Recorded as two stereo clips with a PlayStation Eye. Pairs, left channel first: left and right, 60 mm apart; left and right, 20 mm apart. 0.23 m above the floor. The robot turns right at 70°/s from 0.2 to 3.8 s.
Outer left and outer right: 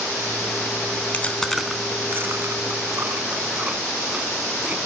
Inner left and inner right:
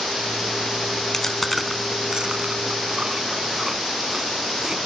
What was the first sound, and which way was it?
Chewing, 25° left (ahead or behind).